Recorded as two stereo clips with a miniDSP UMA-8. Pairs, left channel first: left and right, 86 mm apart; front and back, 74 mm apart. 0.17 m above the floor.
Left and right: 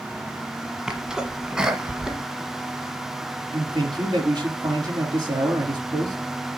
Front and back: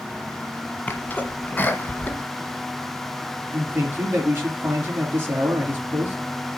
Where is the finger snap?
I don't hear a finger snap.